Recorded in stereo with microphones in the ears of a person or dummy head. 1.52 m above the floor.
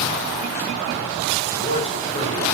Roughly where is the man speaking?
Left.